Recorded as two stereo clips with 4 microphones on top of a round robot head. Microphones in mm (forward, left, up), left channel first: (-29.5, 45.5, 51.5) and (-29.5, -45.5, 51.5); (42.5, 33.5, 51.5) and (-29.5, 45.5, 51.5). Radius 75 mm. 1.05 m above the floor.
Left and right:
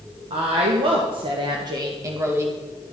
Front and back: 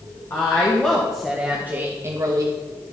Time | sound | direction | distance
0.3 | a woman speaking | 70° right | 1.9 m